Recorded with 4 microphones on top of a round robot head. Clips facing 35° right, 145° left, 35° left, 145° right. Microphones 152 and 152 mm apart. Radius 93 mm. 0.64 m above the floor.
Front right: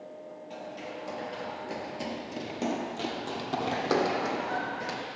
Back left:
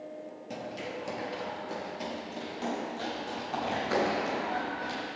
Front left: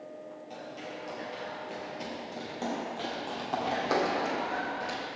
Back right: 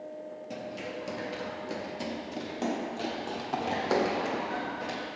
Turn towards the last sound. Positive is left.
turn(degrees=-50)